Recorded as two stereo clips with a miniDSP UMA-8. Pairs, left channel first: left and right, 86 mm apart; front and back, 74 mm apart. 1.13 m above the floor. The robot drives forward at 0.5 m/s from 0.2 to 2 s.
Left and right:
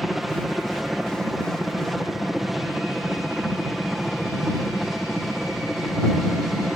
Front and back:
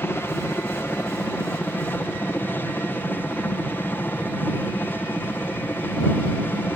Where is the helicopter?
5° right.